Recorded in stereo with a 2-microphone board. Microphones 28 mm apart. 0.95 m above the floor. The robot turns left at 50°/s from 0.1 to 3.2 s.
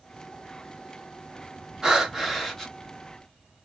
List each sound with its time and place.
1.8 s breathing: 160° right, 1.1 m; by 2.7 s 155° left, 1.1 m